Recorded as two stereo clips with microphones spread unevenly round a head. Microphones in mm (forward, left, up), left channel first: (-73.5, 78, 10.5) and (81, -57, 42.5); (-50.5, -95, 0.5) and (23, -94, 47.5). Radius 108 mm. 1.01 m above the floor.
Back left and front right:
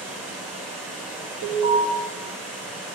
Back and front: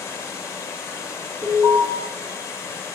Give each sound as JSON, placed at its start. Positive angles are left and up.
{"t": 0.0, "sound": "running water", "azimuth_deg": -135, "distance_m": 1.3}
{"t": 1.4, "sound": "an alarm", "azimuth_deg": -20, "distance_m": 1.7}